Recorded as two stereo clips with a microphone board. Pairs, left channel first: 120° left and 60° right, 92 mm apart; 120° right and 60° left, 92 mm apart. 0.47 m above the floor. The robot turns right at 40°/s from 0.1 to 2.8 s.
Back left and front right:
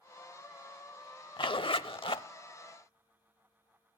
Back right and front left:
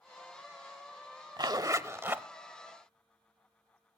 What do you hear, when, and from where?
1.4 s a zipper: 95° left, 0.7 m; by 2.2 s 130° left, 0.7 m